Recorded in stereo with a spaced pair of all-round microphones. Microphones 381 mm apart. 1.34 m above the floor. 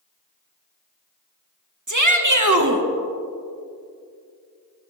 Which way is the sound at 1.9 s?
50° right (ahead or behind).